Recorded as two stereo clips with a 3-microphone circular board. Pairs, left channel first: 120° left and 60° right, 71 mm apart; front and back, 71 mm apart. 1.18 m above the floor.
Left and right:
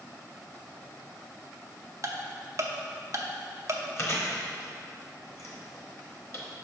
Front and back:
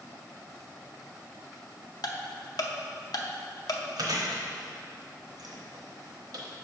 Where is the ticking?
20° right, 0.6 m.